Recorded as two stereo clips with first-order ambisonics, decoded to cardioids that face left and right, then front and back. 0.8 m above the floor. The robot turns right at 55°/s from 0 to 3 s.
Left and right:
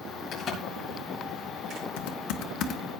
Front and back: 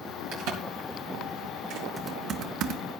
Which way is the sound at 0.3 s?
145° left.